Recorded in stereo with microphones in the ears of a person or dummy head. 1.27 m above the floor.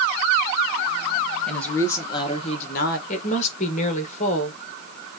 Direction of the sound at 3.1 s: 45° left (ahead or behind).